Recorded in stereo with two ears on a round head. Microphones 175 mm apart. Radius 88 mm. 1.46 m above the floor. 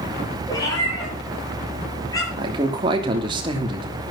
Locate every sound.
0.5 s a cat meowing: 20° left (ahead or behind), 7.5 m
2.4 s a man speaking: 25° right (ahead or behind), 3 m